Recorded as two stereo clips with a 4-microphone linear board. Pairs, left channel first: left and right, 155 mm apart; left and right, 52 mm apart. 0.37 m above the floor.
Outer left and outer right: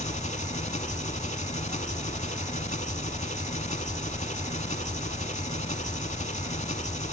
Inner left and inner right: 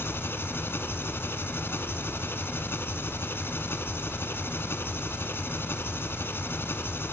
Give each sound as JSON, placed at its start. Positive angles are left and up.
{"t": 0.0, "sound": "an engine running", "side_deg": 50, "distance_m": 0.8}